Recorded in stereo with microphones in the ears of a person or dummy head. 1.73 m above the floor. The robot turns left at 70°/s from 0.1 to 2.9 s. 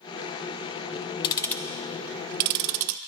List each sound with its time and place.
1.2 s ticking: 30° left (ahead or behind), 0.5 m; by 3.0 s 75° right (ahead or behind), 0.5 m